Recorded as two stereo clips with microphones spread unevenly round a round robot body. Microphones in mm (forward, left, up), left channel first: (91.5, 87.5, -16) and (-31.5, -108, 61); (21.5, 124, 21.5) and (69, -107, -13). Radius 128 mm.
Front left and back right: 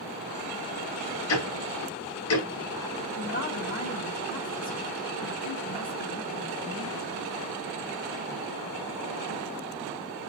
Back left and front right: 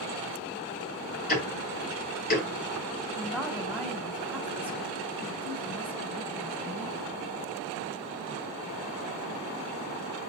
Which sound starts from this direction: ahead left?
Ticking, at 1.3 s.